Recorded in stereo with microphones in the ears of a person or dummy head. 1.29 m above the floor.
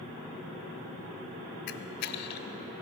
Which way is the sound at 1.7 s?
55° left (ahead or behind).